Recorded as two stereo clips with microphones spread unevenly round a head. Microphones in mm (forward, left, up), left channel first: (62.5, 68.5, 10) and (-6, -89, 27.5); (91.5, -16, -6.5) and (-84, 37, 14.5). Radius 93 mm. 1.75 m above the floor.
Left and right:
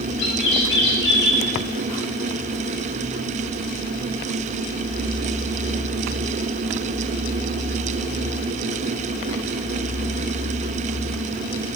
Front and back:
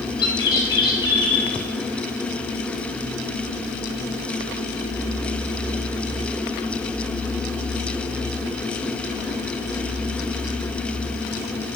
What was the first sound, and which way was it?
A bird, 50° left.